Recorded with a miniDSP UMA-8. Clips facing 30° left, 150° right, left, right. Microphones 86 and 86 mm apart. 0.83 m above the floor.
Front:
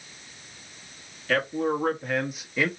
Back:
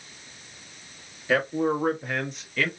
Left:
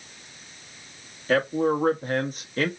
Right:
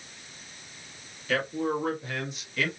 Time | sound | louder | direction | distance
1.3 | a man speaking | back 2 dB, left 6 dB | 135° left | 1.6 m